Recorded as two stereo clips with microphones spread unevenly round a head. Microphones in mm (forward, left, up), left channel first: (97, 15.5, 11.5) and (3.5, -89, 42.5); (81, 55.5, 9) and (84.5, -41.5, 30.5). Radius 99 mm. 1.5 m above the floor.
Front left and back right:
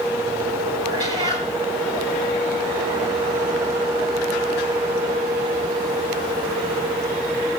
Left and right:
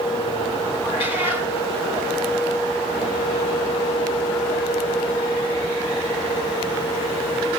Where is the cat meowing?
160° left, 3 m.